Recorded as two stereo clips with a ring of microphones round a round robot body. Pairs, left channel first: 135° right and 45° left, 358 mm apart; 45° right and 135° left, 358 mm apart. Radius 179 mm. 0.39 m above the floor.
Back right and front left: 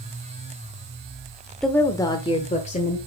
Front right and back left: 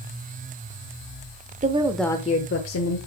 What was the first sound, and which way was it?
A woman speaking, 140° left.